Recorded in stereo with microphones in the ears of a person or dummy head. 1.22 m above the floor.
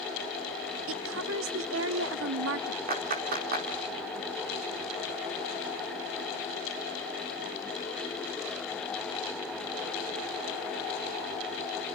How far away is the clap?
About 3.5 m.